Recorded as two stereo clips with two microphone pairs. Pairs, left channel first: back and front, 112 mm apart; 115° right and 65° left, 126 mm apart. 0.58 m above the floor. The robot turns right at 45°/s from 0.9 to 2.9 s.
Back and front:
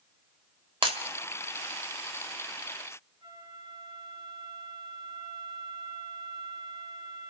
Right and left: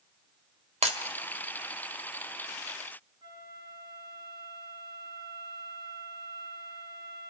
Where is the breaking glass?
35° left, 1.5 m.